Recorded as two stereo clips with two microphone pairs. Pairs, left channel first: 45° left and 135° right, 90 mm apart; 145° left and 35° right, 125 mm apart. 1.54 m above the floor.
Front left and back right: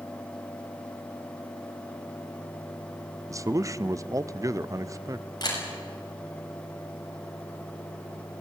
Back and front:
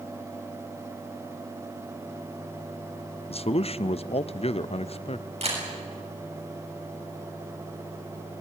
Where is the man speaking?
175° left, 0.6 m.